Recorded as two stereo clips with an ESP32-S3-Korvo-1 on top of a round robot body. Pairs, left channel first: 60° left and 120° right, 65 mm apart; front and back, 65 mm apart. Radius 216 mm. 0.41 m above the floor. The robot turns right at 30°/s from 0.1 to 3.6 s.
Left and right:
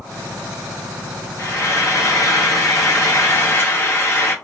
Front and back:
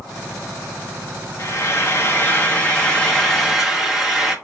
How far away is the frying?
About 1.2 m.